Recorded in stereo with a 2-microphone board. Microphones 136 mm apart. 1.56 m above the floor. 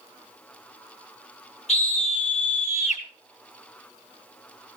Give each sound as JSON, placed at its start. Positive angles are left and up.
{"t": 1.7, "sound": "a scream", "side_deg": 55, "distance_m": 5.5}